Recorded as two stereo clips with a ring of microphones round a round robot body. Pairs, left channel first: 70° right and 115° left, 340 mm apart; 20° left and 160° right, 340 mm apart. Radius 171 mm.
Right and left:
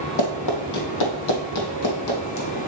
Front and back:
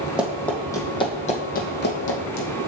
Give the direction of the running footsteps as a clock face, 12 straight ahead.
2 o'clock.